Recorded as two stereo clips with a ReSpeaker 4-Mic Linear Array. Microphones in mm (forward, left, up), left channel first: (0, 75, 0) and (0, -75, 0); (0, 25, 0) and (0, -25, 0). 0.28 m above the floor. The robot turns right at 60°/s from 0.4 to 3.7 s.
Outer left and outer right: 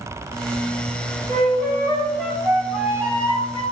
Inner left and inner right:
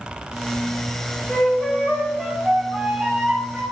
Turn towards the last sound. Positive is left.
turn(degrees=-90)